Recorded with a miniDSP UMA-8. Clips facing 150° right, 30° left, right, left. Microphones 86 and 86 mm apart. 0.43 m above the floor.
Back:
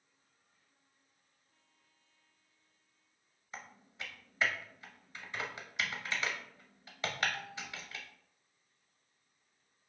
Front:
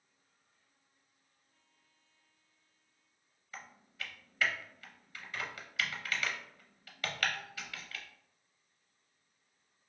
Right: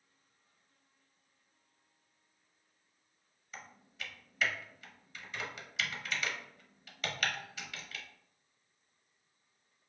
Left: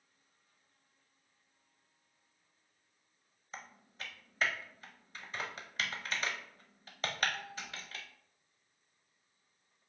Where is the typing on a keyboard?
145° left, 0.6 m.